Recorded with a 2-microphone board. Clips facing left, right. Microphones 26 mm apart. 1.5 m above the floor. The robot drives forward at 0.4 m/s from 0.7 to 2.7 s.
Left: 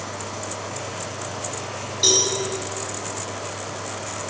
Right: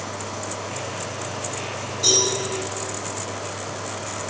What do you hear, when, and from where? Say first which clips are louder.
2.0 s a cowbell: left 1 dB; 55° left (ahead or behind), 7.5 m; by 2.3 s 50° left (ahead or behind), 7.5 m